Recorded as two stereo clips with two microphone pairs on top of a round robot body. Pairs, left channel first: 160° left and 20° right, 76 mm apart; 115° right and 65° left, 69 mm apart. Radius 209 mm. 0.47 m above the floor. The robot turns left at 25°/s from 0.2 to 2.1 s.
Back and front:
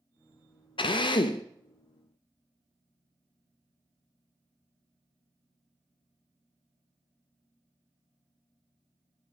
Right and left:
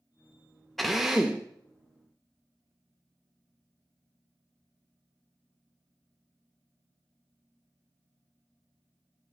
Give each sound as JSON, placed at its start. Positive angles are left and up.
{"t": 0.8, "sound": "a drill", "azimuth_deg": 155, "distance_m": 0.5}